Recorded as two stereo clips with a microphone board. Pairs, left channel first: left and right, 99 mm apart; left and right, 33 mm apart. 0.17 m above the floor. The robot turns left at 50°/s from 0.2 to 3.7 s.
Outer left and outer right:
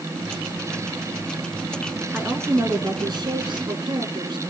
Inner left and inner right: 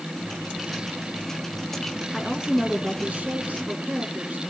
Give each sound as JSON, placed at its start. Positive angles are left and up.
{"t": 2.1, "sound": "a woman speaking", "azimuth_deg": -20, "distance_m": 2.0}